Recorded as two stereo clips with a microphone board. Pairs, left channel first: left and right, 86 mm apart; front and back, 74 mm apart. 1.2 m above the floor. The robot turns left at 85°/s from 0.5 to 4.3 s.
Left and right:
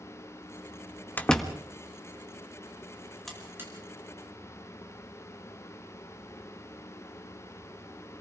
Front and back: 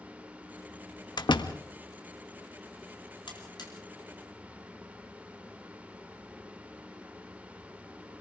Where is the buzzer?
5° left, 5 m; by 3.7 s 35° right, 5 m.